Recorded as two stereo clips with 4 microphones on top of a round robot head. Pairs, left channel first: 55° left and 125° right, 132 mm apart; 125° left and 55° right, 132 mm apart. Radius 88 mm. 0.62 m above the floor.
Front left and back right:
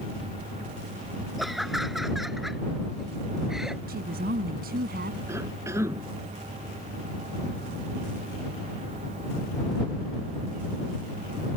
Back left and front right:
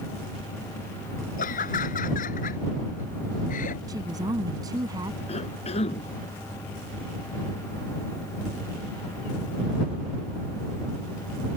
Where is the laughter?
150° left.